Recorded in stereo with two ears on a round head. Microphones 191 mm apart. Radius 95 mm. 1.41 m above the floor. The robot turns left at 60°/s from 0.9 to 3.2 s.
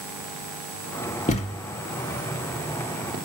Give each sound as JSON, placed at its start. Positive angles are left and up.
{"t": 1.3, "sound": "a thud", "side_deg": 35, "distance_m": 1.3}